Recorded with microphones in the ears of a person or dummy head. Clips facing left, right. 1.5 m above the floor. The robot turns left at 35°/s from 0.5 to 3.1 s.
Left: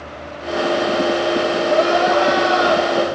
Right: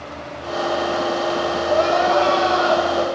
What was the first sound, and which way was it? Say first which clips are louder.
Crying: left 1 dB; 170° right.